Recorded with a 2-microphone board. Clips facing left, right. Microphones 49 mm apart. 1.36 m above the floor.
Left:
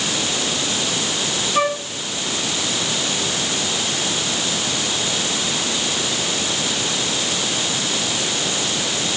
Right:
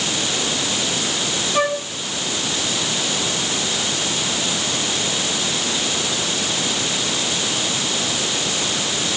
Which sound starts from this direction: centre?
A flute, at 1.6 s.